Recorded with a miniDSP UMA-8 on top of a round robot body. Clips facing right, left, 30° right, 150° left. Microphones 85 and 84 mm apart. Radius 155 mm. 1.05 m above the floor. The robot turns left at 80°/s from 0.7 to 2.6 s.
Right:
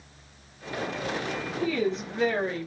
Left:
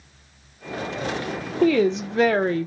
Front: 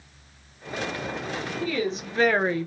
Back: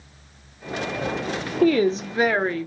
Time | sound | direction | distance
1.6 | a woman speaking | 120° left | 0.6 m